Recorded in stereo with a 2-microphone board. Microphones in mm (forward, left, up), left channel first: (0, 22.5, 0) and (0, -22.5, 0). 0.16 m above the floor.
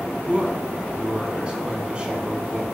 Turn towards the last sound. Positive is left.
turn(degrees=-20)  # may be behind; listen again after turning